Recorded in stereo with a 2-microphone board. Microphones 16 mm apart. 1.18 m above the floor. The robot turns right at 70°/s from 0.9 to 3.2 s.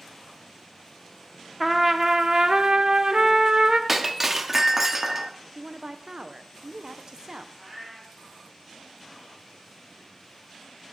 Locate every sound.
1.6 s a trumpet: 170° right, 0.6 m; by 3.8 s 60° right, 0.6 m
3.9 s breaking glass: 15° right (ahead or behind), 0.7 m
5.5 s a woman speaking: 40° right (ahead or behind), 0.6 m
7.5 s a cat meowing: 10° right (ahead or behind), 3 m